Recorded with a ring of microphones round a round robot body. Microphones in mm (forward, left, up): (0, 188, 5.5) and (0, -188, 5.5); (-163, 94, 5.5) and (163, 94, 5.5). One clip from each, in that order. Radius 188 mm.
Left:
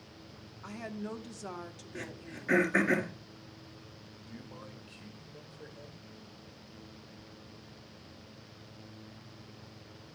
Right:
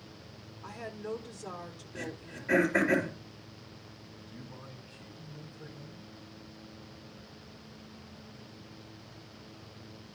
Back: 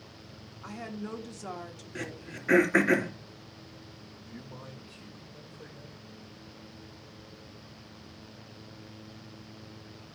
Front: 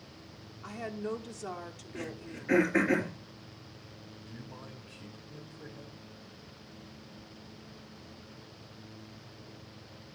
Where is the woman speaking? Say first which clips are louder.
Right 2 dB, front 3 dB; 90° left, 1.0 m.